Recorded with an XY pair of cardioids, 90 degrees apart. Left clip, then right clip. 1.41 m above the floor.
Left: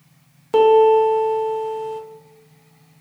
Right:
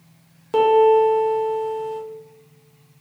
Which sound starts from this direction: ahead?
A piano, at 0.5 s.